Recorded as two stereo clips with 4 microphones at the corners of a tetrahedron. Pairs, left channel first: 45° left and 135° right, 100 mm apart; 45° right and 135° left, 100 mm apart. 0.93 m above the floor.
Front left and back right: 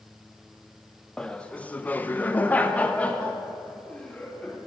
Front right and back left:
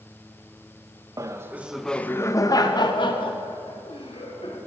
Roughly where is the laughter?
Behind left.